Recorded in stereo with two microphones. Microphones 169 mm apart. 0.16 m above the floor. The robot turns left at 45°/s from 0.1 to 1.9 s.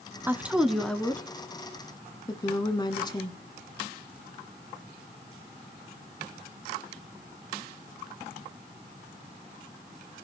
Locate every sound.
0.3 s a woman speaking: 10° right (ahead or behind), 1.2 m; by 3.4 s 25° left (ahead or behind), 1.2 m